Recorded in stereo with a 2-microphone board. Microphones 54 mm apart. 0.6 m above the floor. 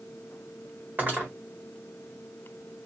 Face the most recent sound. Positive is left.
turn(degrees=-35)  # may be behind; listen again after turning